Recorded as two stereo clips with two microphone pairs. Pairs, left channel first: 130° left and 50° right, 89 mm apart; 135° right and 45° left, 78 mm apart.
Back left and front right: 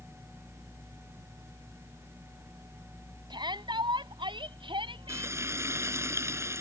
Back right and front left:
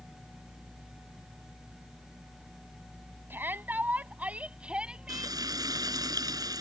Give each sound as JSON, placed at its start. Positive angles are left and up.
{"t": 3.3, "sound": "a shout", "azimuth_deg": -20}
{"t": 5.1, "sound": "frying", "azimuth_deg": 10}